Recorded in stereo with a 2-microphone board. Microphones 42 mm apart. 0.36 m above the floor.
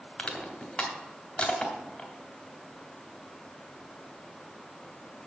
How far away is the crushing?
About 1.8 m.